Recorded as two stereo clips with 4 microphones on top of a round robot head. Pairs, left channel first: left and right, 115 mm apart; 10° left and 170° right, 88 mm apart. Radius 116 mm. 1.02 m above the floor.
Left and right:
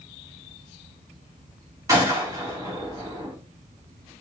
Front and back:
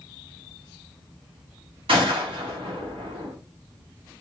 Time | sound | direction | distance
1.9 | a gunshot | 155° right | 1.5 m